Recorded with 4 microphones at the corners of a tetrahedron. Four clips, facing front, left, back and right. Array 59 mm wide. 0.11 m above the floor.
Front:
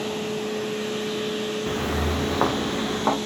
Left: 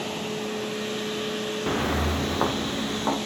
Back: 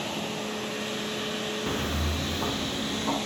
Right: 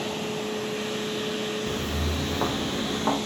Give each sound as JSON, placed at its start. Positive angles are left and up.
{"t": 1.7, "sound": "footsteps", "azimuth_deg": 90, "distance_m": 0.6}